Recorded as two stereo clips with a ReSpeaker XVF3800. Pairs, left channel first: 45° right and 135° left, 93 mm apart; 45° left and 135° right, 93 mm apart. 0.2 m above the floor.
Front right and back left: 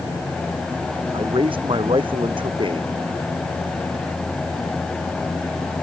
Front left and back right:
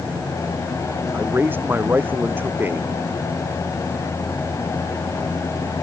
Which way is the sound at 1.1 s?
155° left.